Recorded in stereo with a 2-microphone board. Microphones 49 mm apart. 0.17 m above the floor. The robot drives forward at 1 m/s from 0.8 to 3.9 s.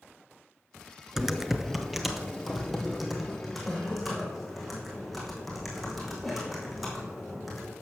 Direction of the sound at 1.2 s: 10° right (ahead or behind).